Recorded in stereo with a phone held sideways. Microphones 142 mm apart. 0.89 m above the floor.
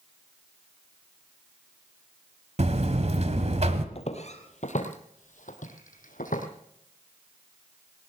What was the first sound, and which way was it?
A buzzer, 50° right (ahead or behind).